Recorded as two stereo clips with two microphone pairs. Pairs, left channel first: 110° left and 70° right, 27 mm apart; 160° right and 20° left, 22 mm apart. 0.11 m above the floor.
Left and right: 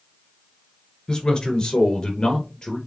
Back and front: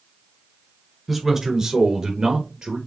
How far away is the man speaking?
About 1.3 m.